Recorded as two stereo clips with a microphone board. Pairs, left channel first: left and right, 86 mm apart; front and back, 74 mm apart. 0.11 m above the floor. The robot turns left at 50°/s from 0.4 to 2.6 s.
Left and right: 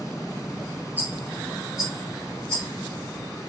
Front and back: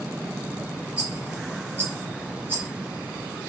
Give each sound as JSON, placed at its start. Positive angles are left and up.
{"t": 1.0, "sound": "a rattle", "azimuth_deg": -120, "distance_m": 1.6}